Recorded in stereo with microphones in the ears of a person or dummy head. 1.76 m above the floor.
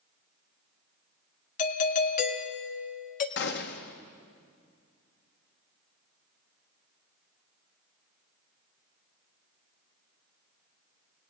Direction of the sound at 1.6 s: 45° left (ahead or behind).